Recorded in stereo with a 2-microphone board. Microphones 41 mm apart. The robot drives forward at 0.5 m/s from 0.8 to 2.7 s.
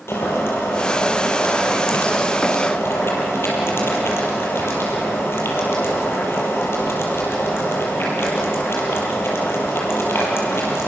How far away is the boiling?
About 6 m.